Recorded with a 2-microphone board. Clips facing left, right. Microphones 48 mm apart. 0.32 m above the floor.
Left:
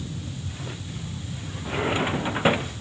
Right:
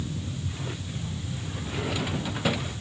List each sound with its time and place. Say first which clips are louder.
1.6 s a drawer: left 6 dB; 35° left (ahead or behind)